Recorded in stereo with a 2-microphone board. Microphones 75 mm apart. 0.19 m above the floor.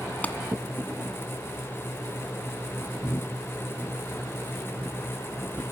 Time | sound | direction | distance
0.2 | a clap | 20° left (ahead or behind) | 1.6 m